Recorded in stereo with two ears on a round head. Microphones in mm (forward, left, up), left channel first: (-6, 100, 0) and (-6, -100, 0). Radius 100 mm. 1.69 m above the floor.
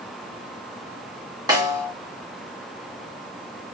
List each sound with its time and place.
1.5 s a snare drum: 20° right (ahead or behind), 1.8 m